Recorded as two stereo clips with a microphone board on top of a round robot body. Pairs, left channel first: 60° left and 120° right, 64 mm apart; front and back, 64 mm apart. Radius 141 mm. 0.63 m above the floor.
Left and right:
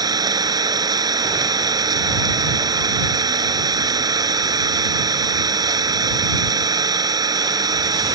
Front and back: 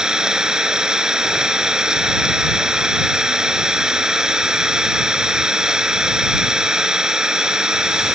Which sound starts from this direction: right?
An engine running, at 0.0 s.